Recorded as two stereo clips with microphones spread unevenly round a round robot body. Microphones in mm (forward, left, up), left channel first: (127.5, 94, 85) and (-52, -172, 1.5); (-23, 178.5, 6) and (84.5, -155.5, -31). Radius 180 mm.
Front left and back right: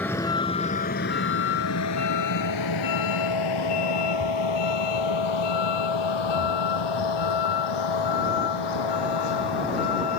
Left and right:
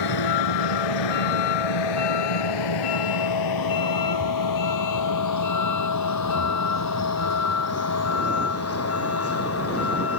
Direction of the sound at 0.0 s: 140° left.